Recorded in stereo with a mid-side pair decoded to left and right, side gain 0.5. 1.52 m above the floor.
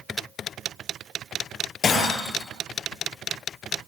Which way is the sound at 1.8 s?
40° left.